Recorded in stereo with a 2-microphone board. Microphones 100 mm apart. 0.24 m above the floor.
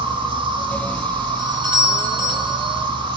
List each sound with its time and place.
0.0 s an insect: 55° right (ahead or behind), 1.8 m
1.4 s a doorbell: 50° right (ahead or behind), 3 m